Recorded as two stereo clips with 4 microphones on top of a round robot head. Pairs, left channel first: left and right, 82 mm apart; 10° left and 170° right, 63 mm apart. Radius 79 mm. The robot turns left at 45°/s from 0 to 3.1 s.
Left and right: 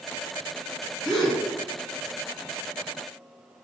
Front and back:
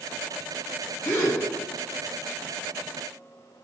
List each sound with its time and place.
1.1 s a gasp: 5° left, 1.4 m; by 1.4 s 10° right, 1.4 m